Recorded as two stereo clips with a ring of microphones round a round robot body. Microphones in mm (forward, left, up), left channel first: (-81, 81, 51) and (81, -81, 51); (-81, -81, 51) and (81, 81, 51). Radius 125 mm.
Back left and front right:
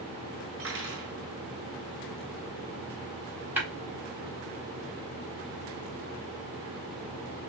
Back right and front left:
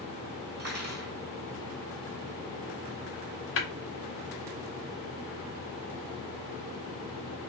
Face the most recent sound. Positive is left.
turn(degrees=-125)